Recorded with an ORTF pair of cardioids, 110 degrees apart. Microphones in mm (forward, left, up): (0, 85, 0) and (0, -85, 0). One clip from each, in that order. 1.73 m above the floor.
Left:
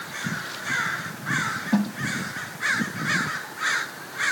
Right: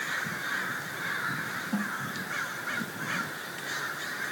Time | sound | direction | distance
1.7 | a snare drum | 50° left | ?